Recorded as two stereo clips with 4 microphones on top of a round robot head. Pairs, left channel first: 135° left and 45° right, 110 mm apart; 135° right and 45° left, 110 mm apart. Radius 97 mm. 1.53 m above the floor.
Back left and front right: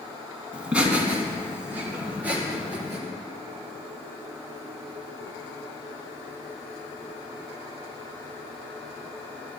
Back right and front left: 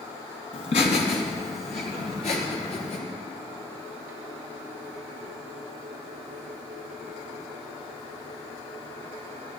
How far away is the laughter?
About 2 m.